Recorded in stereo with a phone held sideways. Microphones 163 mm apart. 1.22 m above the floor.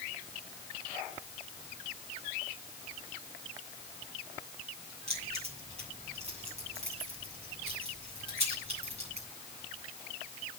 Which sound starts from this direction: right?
Keys jangling, at 5.1 s.